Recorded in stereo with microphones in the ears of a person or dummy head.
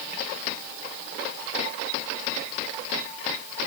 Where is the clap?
I don't hear a clap.